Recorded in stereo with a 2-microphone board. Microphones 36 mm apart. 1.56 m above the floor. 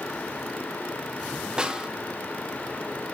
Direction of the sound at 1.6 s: 20° right (ahead or behind).